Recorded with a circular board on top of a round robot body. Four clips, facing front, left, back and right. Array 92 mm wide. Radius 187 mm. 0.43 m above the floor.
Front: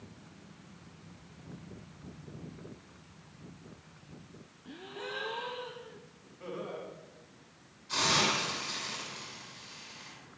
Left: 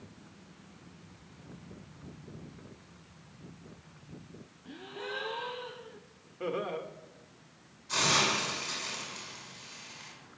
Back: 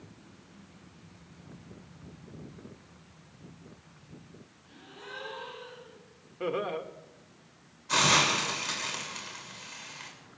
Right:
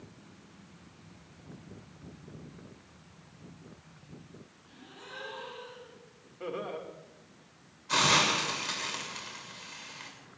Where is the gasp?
50° left, 4 m.